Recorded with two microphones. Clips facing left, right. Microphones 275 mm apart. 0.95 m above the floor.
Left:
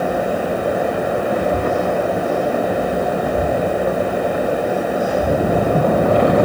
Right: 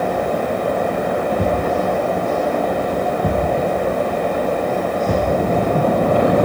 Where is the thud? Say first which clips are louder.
Even; 55° right (ahead or behind), 3.5 m.